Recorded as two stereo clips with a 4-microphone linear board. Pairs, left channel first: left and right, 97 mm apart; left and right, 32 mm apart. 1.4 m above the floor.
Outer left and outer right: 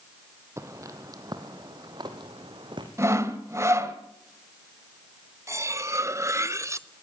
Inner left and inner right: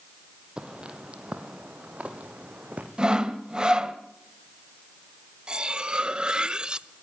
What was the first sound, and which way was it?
Footsteps, 30° right (ahead or behind).